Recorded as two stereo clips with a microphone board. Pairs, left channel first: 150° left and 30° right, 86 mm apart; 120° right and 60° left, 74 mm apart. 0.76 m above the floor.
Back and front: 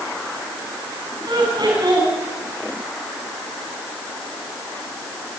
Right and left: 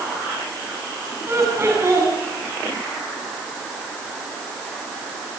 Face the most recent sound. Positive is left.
turn(degrees=5)